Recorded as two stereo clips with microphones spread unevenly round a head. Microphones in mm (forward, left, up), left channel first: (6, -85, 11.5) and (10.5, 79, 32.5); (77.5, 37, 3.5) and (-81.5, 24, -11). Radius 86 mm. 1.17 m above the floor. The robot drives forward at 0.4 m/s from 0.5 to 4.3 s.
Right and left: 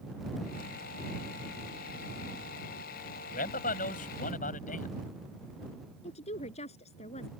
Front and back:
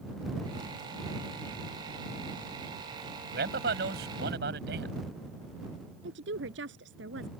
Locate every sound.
3.3 s a man speaking: 135° right; by 5.0 s 140° right
6.0 s a woman speaking: 145° right